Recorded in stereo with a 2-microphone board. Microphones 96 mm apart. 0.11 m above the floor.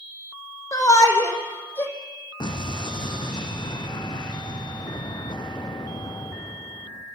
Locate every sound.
0.7 s a shout: 35° left (ahead or behind), 5 m; by 1.9 s 25° left (ahead or behind), 4.5 m
2.4 s an explosion: 50° left (ahead or behind), 3 m